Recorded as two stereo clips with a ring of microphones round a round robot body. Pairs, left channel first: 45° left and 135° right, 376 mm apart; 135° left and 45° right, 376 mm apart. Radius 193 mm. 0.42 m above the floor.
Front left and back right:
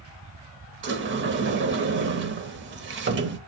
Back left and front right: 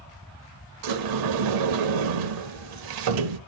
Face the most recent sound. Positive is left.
turn(degrees=-75)